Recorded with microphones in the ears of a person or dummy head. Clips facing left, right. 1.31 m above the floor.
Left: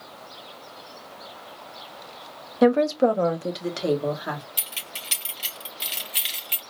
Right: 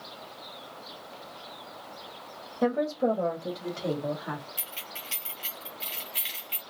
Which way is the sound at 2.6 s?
70° left (ahead or behind).